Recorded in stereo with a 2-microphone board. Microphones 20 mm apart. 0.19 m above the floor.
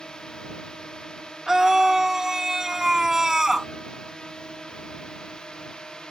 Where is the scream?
35° right (ahead or behind).